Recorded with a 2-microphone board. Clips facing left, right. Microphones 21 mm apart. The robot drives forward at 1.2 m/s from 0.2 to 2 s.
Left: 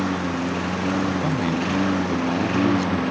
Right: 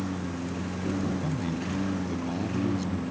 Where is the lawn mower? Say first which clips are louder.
Left 9 dB; 45° left (ahead or behind); by 3.1 s 50° left (ahead or behind).